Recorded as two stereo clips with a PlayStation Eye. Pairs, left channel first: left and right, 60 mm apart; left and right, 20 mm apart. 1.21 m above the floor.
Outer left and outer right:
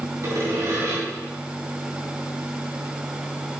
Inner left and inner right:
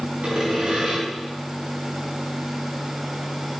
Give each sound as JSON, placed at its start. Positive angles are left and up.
{"t": 0.2, "sound": "sawing", "side_deg": -60, "distance_m": 3.0}